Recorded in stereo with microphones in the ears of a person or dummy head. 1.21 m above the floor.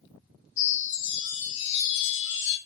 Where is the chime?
65° left (ahead or behind), 4.5 m.